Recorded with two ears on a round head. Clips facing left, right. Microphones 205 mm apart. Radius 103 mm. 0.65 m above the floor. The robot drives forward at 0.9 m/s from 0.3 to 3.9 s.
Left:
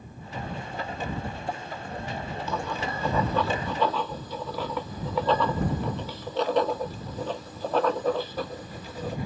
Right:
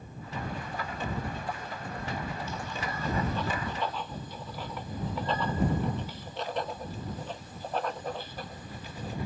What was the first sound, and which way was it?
Writing, 50° left (ahead or behind).